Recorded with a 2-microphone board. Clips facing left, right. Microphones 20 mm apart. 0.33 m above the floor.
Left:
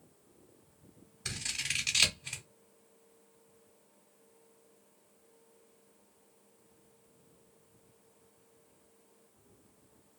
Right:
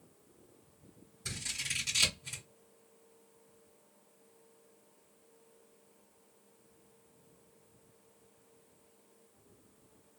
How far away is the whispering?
I don't hear whispering.